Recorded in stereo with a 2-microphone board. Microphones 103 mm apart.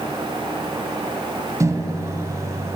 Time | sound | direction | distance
1.6 | a microwave | 30° right (ahead or behind) | 1.0 m